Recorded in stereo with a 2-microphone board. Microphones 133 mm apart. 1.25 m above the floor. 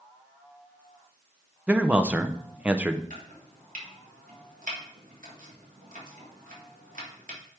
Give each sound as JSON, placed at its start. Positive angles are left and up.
{"t": 1.7, "sound": "a man speaking", "side_deg": -10, "distance_m": 0.6}
{"t": 3.1, "sound": "chopping", "side_deg": -80, "distance_m": 1.7}